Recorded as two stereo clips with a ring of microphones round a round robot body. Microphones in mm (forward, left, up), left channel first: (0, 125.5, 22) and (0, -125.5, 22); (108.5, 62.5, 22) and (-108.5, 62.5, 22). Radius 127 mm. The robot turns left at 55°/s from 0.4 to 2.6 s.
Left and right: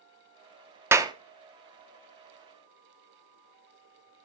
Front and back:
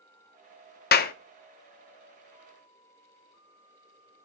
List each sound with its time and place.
0.9 s a clap: 15° right, 0.9 m; by 1.1 s 25° right, 0.9 m